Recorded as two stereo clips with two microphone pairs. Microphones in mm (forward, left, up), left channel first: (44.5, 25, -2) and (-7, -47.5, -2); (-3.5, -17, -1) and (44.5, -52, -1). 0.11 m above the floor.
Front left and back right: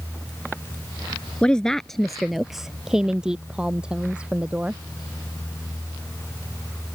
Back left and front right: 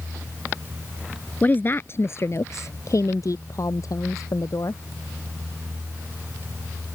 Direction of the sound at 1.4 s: 120° left.